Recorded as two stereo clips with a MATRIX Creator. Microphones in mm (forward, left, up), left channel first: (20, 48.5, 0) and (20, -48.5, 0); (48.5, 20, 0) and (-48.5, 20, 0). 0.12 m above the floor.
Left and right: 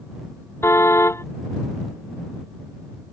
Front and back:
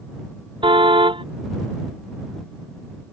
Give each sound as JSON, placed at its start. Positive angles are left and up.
{"t": 0.6, "sound": "a car horn", "azimuth_deg": 150}